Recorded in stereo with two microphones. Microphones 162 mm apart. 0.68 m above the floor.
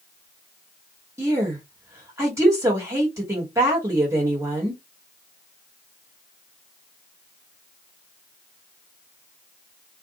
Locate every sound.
1.2 s a woman speaking: 20° right (ahead or behind), 1.4 m